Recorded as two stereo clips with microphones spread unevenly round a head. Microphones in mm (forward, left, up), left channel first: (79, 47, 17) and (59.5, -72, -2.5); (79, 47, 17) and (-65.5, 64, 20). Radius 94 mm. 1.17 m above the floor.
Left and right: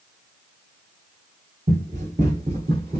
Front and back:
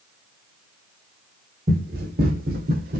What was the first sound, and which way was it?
Running footsteps, 150° right.